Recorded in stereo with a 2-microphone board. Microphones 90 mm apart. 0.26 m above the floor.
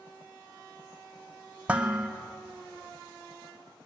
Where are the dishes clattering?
15° right (ahead or behind), 0.9 m.